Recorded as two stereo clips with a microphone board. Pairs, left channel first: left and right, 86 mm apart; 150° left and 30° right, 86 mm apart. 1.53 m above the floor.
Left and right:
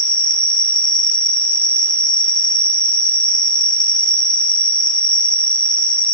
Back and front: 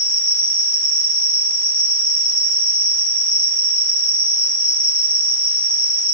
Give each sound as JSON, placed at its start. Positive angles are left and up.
{"t": 0.0, "sound": "an insect", "azimuth_deg": 65, "distance_m": 3.0}